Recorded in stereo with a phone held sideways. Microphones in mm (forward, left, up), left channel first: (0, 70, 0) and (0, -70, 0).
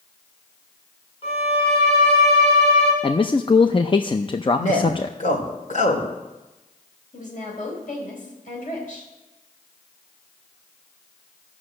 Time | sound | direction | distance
1.2 | a violin | 40° left (ahead or behind) | 5 m
3.0 | a man speaking | 35° left (ahead or behind) | 0.5 m
4.6 | a man speaking | 65° left (ahead or behind) | 2.5 m
7.1 | a woman speaking | 65° left (ahead or behind) | 4.5 m